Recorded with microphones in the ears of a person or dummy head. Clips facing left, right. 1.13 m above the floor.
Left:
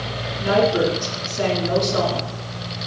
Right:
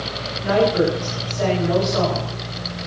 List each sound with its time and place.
0.4 s a woman speaking: 35° left (ahead or behind), 10 m